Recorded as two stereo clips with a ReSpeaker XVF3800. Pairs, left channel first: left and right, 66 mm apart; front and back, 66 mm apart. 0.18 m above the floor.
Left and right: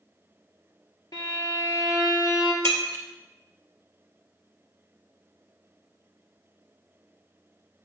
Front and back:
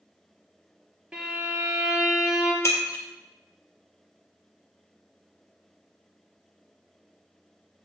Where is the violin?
105° left, 1.8 m.